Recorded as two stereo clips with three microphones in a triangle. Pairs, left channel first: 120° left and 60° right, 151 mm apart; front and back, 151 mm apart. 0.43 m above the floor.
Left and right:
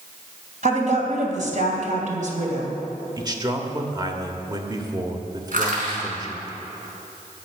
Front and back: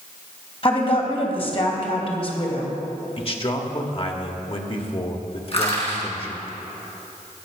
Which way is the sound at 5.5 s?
45° right.